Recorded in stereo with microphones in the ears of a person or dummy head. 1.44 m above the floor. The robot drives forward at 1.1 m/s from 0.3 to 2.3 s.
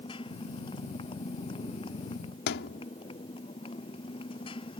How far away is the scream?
I don't hear a scream.